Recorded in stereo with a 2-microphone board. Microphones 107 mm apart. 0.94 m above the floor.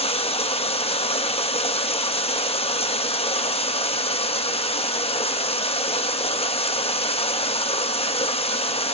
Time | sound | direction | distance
0.0 | running water | 65° left (ahead or behind) | 1.1 m